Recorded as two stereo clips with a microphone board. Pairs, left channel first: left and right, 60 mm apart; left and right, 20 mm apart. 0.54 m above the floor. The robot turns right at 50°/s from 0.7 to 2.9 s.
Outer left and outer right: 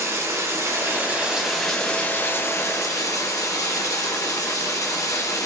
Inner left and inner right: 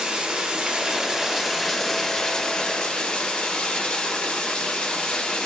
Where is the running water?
45° right, 0.9 m; by 5.5 s 65° left, 0.9 m.